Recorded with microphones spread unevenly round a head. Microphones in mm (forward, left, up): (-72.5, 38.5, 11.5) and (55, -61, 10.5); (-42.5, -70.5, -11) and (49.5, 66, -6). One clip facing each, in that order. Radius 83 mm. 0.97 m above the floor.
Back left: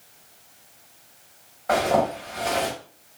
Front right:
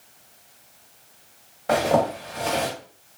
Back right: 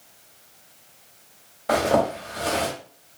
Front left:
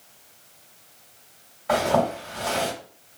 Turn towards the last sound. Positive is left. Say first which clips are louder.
# front right 1 dB, back right 1 dB
turn(degrees=-90)